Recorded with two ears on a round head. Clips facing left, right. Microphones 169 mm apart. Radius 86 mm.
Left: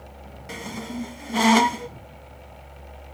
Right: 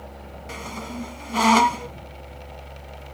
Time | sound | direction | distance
0.5 | a squeak | 10° left (ahead or behind) | ?